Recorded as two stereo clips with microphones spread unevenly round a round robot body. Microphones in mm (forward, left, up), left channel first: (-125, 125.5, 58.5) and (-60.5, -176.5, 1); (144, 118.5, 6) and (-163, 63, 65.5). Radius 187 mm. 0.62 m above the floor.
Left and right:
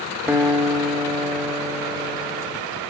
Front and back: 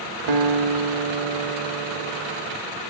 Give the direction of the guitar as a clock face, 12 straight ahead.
5 o'clock.